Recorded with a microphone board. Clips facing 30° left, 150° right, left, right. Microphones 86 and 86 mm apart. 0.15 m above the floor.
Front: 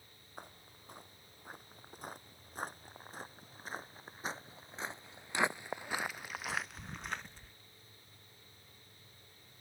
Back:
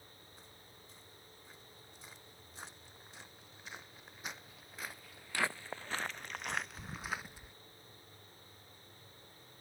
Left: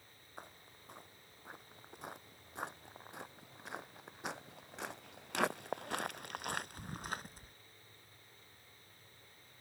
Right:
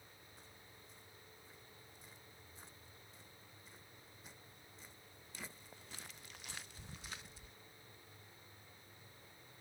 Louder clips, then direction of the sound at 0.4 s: Front 5 dB, left 12 dB; 65° left.